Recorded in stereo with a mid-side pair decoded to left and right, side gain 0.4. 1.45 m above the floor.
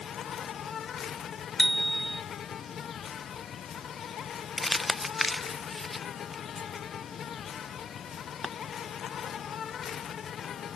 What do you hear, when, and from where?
0.0 s an insect: 65° left
1.6 s a bicycle bell: 10° left
4.6 s crumpling: 25° left